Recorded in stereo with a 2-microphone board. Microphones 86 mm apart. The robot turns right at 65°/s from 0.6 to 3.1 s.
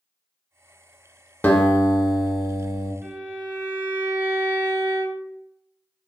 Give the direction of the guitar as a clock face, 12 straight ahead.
11 o'clock.